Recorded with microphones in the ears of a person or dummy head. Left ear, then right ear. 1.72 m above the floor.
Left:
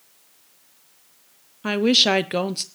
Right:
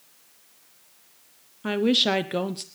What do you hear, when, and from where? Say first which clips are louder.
1.6 s a woman speaking: left 4 dB; 20° left (ahead or behind), 0.9 m